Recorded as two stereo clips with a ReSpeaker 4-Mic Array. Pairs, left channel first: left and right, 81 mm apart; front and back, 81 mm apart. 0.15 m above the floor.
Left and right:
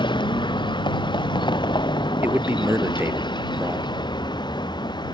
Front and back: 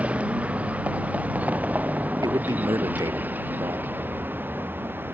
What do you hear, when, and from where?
0.0 s a vehicle: 105° left; by 5.1 s 115° left
2.2 s a man speaking: 150° right